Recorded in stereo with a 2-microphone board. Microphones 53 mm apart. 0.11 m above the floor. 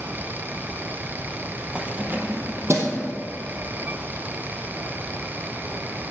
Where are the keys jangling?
20° right (ahead or behind), 1.7 m; by 3.0 s 60° right (ahead or behind), 2.5 m.